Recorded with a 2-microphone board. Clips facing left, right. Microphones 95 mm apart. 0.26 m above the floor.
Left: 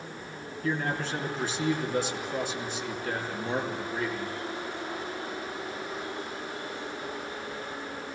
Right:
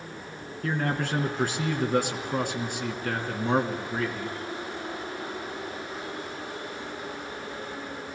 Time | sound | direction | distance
0.6 | a man speaking | 60° right (ahead or behind) | 3 m